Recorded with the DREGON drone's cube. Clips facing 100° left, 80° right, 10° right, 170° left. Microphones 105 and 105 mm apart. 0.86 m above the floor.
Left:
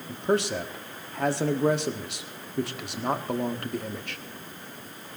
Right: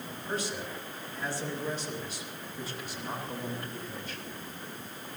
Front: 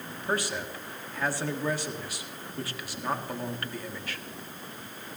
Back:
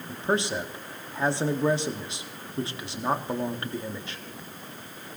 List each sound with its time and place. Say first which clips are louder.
0.1 s a man speaking: left 11 dB, back 4 dB; 105° left, 1.6 m